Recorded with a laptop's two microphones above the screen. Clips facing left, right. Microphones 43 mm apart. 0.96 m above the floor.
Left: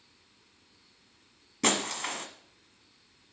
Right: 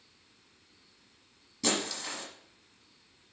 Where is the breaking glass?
55° left (ahead or behind), 1.3 m.